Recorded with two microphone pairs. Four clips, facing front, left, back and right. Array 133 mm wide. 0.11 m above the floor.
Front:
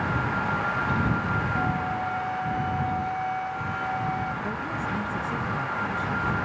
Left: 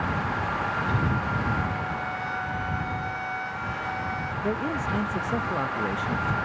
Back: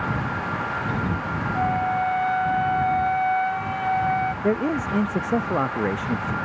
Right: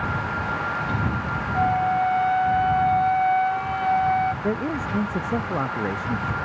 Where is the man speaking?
170° right.